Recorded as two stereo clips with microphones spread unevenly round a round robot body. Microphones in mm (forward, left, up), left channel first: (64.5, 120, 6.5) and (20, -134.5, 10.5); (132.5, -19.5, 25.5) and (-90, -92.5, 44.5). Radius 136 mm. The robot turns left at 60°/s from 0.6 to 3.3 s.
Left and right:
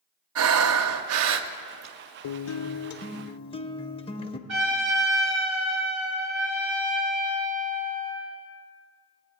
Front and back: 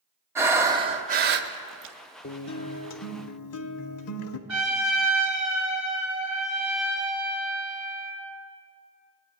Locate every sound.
0.3 s breathing: 90° right, 0.5 m; by 1.9 s 170° right, 0.5 m
2.2 s a guitar: 75° left, 0.5 m; by 4.4 s 10° left, 0.5 m
4.5 s a trumpet: 140° right, 3 m